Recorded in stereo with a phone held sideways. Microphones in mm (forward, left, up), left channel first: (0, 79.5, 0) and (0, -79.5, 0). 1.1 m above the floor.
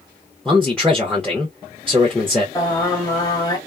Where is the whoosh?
No whoosh in this recording.